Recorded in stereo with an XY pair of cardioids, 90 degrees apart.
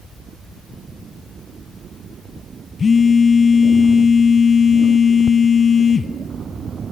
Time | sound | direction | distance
2.8 | a phone buzzing | 45° left | 0.5 m